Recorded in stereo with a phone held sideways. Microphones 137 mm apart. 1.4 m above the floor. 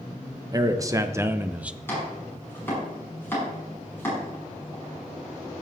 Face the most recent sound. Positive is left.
turn(degrees=15)  # may be behind; listen again after turning